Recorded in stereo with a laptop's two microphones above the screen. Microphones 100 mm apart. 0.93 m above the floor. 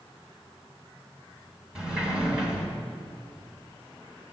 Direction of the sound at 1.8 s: 10° right (ahead or behind).